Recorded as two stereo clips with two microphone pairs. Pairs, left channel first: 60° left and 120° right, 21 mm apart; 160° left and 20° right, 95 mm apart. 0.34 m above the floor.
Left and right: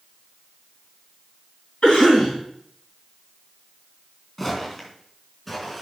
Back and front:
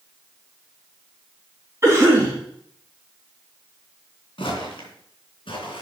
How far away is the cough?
About 3 m.